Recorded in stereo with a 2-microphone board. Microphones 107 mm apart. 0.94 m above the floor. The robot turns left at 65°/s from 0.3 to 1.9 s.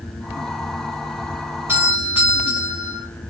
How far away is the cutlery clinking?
I don't hear cutlery clinking.